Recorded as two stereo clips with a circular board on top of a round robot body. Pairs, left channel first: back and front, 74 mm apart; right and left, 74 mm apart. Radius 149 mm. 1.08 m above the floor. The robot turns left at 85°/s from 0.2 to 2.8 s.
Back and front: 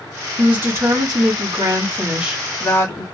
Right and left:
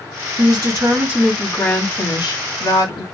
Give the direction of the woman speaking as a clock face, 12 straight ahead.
9 o'clock.